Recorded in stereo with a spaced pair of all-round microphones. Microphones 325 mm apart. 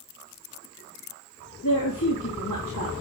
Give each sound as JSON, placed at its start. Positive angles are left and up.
{"t": 1.6, "sound": "a woman speaking", "side_deg": 70, "distance_m": 3.0}